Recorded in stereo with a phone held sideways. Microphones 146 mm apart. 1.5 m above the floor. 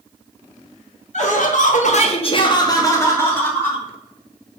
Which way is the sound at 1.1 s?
55° left (ahead or behind).